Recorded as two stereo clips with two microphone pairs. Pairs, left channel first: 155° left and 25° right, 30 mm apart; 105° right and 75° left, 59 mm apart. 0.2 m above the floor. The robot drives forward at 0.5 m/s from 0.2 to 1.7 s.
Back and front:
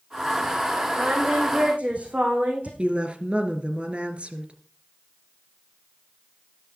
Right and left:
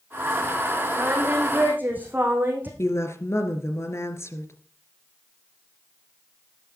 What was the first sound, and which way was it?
Singing, 15° left.